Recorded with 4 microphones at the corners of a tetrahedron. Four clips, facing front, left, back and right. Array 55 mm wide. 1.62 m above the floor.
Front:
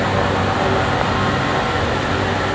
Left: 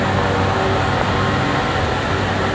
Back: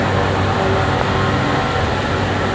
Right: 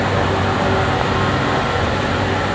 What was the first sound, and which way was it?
Only background noise.